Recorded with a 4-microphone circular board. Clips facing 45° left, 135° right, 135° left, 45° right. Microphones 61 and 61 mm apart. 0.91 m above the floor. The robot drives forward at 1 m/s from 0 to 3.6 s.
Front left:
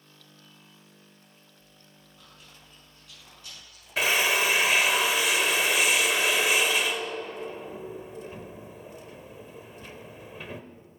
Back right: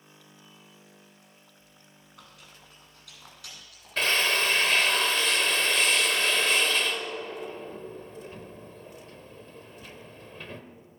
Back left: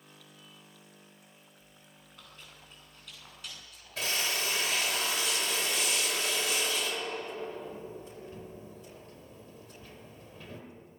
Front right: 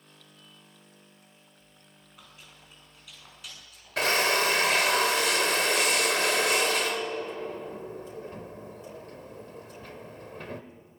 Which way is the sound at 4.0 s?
35° right.